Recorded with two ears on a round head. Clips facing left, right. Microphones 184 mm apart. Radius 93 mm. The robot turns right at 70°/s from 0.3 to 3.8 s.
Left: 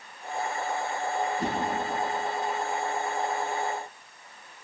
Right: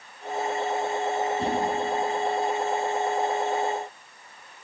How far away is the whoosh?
About 3 m.